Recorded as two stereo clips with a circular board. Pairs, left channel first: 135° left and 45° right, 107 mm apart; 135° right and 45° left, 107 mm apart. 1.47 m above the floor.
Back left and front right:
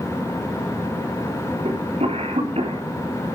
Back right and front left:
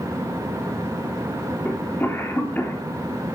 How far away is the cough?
About 4 m.